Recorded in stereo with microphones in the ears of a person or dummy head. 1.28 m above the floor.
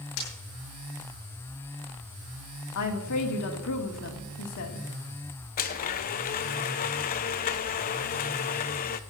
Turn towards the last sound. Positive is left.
turn(degrees=40)  # may be behind; listen again after turning